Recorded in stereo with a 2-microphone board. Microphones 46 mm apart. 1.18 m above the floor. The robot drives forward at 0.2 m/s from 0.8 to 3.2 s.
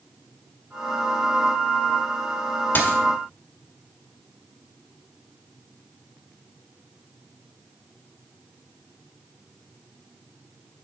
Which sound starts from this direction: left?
A dropped coin, at 2.8 s.